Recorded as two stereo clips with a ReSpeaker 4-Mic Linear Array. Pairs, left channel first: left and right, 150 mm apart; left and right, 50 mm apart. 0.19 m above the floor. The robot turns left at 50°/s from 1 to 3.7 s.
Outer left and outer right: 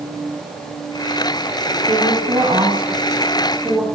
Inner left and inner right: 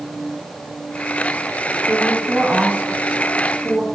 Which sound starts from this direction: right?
A woman speaking, at 1.9 s.